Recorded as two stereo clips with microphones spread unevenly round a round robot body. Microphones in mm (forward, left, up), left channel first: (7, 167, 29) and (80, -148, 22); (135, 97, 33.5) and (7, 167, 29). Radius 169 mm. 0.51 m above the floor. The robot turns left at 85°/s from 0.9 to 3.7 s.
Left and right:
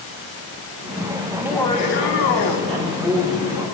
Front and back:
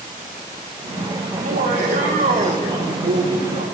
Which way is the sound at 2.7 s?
130° right.